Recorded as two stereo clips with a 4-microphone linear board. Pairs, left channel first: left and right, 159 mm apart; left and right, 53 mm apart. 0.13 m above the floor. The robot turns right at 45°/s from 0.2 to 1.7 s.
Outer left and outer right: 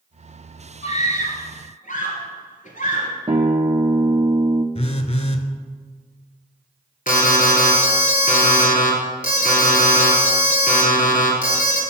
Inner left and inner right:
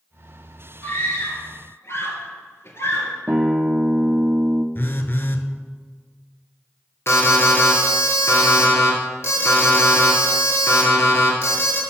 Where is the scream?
45° left (ahead or behind), 2 m; by 3.1 s 55° left (ahead or behind), 2 m.